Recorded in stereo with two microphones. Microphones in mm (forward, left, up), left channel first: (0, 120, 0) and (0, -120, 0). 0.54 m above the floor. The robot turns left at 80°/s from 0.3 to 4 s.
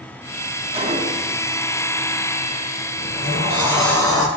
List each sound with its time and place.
0.7 s a gunshot: 25° right (ahead or behind), 0.8 m; by 1.4 s 15° right (ahead or behind), 0.8 m
3.0 s a sliding door: 115° right, 1.7 m; by 4.3 s 165° left, 1.7 m